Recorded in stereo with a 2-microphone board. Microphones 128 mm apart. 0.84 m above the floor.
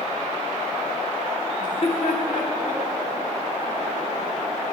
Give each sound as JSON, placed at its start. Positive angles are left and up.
{"t": 1.6, "sound": "laughter", "side_deg": 30, "distance_m": 1.1}